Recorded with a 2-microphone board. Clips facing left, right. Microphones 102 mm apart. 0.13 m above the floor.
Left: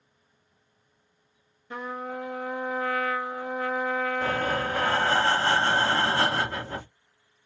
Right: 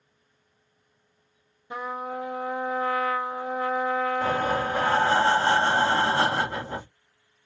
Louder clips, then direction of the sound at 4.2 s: Right 2 dB; 20° right (ahead or behind).